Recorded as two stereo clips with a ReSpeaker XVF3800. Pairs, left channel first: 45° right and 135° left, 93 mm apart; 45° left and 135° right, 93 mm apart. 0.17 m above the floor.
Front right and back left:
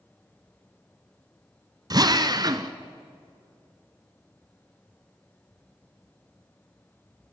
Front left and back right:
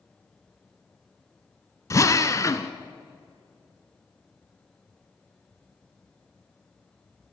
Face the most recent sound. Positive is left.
turn(degrees=100)